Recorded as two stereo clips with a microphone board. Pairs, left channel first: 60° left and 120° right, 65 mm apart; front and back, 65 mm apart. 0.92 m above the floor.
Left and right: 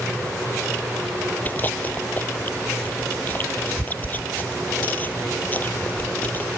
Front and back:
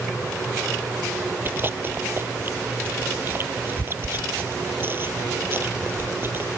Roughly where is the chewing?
Behind left.